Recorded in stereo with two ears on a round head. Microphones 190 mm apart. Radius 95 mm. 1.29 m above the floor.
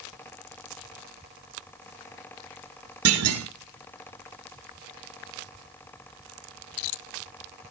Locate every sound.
3.0 s a clunk: 80° right, 2 m